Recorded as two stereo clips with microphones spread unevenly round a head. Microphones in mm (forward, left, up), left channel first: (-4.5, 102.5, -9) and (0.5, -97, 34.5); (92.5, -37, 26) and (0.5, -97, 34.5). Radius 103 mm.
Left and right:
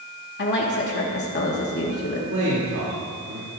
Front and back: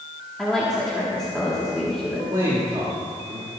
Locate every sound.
0.4 s a woman speaking: 115° left, 1.5 m
2.3 s a man speaking: 100° right, 2.5 m